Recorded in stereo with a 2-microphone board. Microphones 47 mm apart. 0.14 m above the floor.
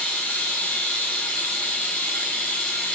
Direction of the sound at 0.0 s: 40° left (ahead or behind).